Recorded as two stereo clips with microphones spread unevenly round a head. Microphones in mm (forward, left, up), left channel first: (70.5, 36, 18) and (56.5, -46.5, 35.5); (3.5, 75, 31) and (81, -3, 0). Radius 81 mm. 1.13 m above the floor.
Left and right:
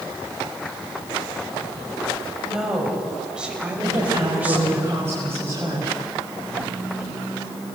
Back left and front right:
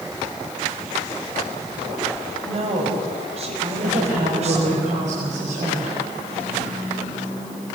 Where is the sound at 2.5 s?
15° right, 7 m; by 4.8 s 30° right, 5.5 m.